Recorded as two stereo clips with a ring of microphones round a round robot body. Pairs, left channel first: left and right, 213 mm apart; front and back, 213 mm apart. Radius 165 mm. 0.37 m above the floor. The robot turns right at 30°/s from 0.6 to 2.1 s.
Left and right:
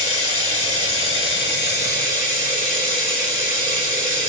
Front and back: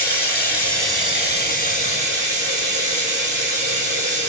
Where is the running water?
100° left, 1.3 m; by 4.3 s 145° left, 1.3 m.